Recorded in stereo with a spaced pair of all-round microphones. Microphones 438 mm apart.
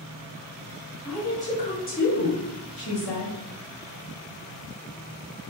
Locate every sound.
1.1 s a woman speaking: centre (ahead or behind), 2 m; by 3.4 s 75° left (ahead or behind), 1.5 m